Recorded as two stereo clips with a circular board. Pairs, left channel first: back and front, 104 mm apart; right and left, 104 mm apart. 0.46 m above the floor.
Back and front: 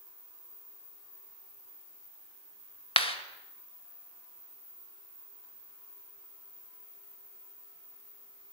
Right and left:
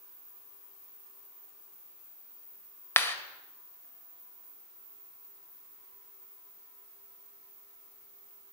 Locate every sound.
3.0 s a clap: 160° right, 1.8 m